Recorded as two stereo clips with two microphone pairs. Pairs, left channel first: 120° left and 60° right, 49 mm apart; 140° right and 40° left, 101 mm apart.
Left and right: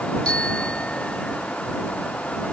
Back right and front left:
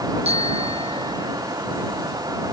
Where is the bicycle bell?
45° left.